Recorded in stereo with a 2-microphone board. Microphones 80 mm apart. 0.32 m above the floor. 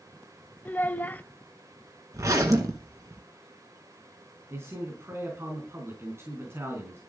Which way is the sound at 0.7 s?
20° left (ahead or behind).